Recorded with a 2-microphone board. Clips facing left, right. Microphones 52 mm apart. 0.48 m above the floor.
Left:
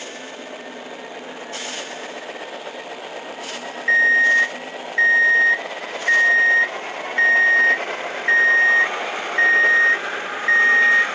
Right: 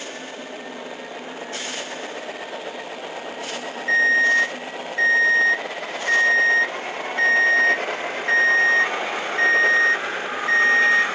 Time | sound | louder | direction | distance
3.9 | an alarm clock | left 2 dB | 35° left (ahead or behind) | 1.1 m